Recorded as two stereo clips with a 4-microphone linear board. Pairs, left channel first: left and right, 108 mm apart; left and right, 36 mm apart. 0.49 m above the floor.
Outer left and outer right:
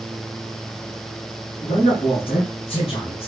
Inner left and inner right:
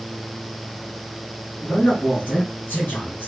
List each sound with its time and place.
1.6 s a man speaking: 60° left (ahead or behind), 2.5 m; by 3.3 s 55° left (ahead or behind), 1.4 m